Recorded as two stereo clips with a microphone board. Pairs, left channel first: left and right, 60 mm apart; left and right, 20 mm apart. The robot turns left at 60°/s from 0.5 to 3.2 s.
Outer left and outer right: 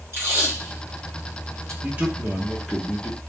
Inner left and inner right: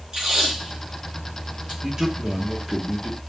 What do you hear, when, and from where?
0.1 s tape being pulled: 45° right (ahead or behind), 1.7 m; by 1.7 s 60° right (ahead or behind), 1.7 m
1.8 s a man speaking: 135° right, 0.9 m; by 3.2 s 140° left, 0.9 m